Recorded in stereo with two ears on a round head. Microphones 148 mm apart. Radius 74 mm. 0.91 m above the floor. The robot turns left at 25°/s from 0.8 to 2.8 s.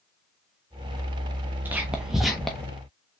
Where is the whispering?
10° right (ahead or behind), 0.7 m; by 2.7 s 5° left (ahead or behind), 0.7 m.